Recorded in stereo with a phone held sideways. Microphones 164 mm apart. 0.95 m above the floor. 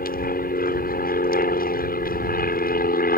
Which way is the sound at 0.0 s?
65° left (ahead or behind).